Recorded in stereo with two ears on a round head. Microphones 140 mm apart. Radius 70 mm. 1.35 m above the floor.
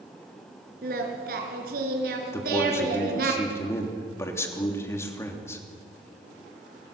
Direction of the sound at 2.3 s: 20° left (ahead or behind).